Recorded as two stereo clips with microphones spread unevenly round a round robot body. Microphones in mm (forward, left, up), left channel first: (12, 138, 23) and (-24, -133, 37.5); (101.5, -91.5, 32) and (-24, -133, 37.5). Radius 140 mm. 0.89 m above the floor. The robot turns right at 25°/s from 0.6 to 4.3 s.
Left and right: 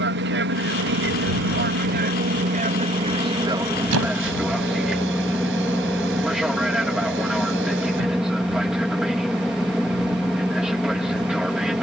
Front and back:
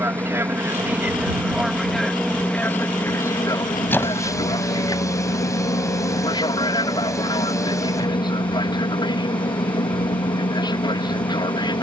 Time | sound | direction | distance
0.0 | an aircraft | 100° right | ?
3.9 | a squeak | 55° right | ?